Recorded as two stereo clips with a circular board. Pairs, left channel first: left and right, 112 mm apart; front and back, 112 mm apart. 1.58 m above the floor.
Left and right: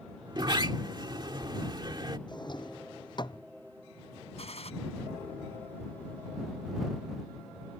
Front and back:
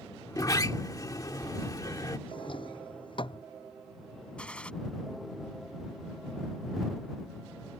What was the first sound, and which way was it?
A sliding door, 50° right.